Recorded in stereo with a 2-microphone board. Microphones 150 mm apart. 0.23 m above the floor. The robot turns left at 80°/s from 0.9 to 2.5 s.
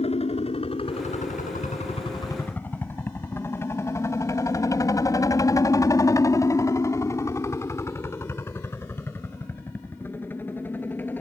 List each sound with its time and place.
0.0 s a helicopter: 40° left (ahead or behind); by 11.2 s 10° left (ahead or behind)